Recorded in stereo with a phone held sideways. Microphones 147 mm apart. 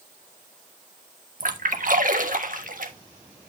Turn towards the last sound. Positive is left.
turn(degrees=-65)  # may be behind; listen again after turning